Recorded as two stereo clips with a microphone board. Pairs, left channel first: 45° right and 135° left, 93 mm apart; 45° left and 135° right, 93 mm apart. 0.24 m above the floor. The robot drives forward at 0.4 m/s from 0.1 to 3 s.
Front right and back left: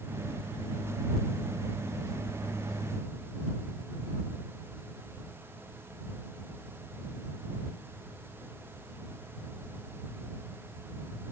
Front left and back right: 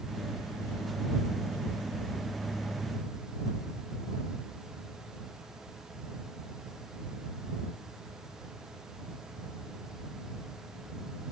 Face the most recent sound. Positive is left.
No sound to turn to.